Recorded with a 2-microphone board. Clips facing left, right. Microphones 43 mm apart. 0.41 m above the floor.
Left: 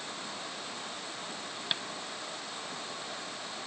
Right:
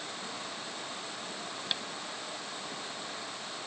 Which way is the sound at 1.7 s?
10° left (ahead or behind).